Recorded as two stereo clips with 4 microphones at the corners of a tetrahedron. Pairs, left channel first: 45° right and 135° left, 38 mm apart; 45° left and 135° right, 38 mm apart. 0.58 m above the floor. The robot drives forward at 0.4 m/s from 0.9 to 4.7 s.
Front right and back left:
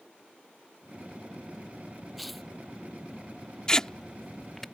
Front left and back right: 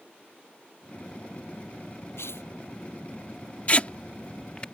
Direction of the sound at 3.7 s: 10° left.